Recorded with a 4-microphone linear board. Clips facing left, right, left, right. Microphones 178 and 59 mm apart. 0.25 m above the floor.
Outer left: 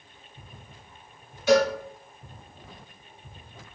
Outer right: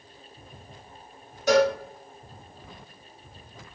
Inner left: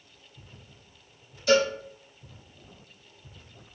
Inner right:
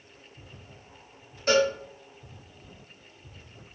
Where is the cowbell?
45° right (ahead or behind), 1.7 m.